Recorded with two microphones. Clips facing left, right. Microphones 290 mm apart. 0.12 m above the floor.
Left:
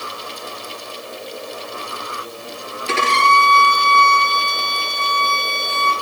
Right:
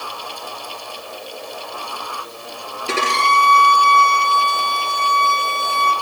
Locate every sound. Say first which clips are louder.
2.9 s a violin: left 1 dB; 40° right (ahead or behind), 1.7 m